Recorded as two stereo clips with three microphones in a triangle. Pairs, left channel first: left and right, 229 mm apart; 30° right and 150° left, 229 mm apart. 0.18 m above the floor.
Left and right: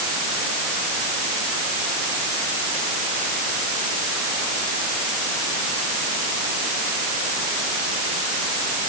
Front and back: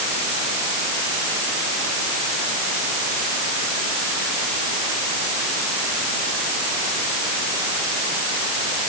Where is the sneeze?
I don't hear a sneeze.